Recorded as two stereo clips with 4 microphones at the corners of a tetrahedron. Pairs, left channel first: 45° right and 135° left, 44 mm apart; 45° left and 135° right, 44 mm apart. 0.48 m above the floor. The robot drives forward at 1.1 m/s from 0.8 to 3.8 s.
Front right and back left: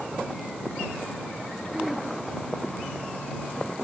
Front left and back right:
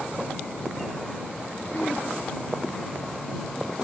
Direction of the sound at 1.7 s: 60° left.